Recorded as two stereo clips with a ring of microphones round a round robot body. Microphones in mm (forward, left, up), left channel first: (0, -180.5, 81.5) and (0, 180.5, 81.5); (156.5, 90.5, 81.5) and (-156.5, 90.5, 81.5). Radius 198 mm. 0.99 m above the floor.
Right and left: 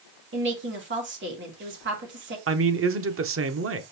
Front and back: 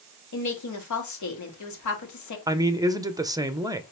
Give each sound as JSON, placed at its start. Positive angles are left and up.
{"t": 0.3, "sound": "a woman speaking", "azimuth_deg": 30, "distance_m": 2.5}
{"t": 2.5, "sound": "a man speaking", "azimuth_deg": 110, "distance_m": 0.9}